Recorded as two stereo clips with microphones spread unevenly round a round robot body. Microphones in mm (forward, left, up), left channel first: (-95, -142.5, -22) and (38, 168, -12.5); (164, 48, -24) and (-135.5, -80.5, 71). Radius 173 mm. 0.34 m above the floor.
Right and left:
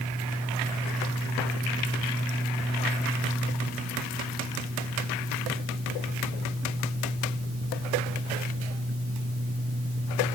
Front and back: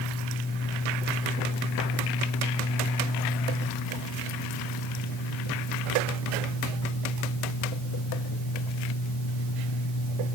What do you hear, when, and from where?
Only background noise.